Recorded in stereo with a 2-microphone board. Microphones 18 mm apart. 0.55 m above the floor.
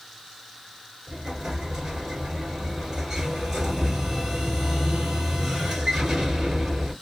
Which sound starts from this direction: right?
An explosion, at 1.1 s.